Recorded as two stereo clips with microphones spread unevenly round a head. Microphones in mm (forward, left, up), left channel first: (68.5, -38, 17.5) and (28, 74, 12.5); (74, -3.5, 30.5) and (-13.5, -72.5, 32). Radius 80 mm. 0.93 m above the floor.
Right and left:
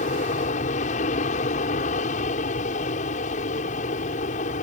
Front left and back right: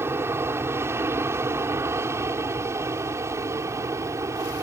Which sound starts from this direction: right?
An aircraft, at 0.0 s.